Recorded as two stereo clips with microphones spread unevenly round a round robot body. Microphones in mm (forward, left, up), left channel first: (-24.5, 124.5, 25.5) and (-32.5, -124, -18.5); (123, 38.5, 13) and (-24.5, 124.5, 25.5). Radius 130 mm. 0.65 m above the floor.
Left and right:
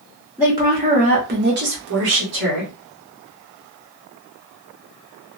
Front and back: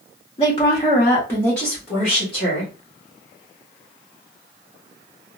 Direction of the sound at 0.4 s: 30° right.